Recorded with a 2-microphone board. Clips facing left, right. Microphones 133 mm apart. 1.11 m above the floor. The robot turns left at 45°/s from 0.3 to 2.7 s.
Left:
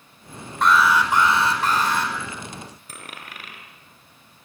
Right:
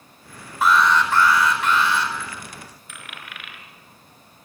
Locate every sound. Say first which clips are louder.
0.6 s an alarm: even; 175° right, 4.5 m; by 2.1 s 115° left, 4.5 m
2.9 s a dropped coin: left 1 dB; 40° left (ahead or behind), 3.5 m